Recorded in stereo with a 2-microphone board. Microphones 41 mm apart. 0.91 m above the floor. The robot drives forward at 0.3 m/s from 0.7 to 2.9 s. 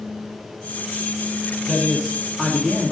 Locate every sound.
1.7 s a man speaking: 15° left (ahead or behind), 1.0 m; by 2.9 s 10° left (ahead or behind), 1.3 m